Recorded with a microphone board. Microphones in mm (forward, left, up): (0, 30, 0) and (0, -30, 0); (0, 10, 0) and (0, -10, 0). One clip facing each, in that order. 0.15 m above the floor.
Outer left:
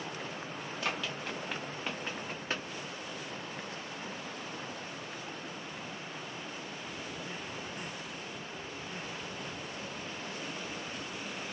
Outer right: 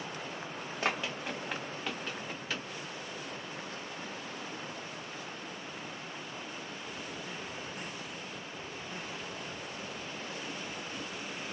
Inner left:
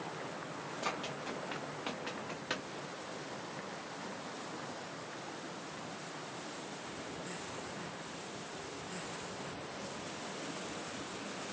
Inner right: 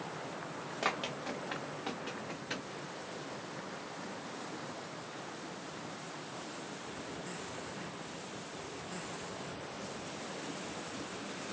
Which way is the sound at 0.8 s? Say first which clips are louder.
Outer right 3 dB, inner right 4 dB; 35° right (ahead or behind).